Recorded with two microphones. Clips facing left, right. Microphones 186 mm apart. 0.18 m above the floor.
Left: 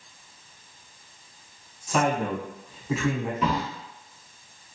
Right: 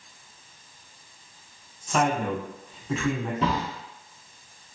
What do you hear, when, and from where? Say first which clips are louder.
1.9 s a man speaking: even; 5° left (ahead or behind), 1.0 m
3.4 s a drawer: even; 30° right (ahead or behind), 1.1 m